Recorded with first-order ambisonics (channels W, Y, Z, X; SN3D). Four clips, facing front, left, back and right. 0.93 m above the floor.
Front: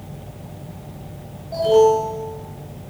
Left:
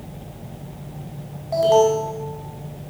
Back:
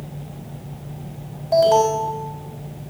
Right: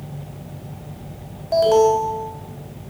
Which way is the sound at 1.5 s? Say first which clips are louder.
Right 1 dB, front 1 dB; 125° right.